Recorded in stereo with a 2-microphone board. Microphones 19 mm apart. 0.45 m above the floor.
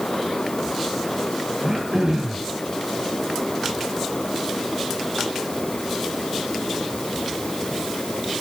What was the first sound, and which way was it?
Throat clearing, 30° right (ahead or behind).